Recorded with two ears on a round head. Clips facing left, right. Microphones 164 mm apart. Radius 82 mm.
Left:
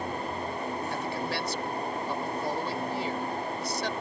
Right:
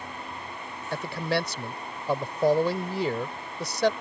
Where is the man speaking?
55° right (ahead or behind).